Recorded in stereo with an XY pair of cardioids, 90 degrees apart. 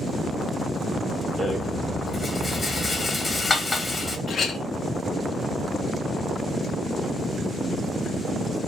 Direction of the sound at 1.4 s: 25° left.